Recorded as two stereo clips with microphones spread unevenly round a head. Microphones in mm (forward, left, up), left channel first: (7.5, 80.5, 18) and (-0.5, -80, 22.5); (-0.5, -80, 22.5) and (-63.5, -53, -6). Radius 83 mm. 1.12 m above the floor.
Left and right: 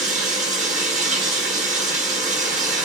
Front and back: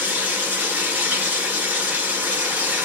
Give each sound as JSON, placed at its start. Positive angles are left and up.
{"t": 0.0, "sound": "running water", "azimuth_deg": -140, "distance_m": 1.5}